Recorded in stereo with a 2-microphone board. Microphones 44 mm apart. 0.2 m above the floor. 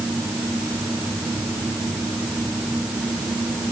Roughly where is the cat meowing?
No cat meowing in this recording.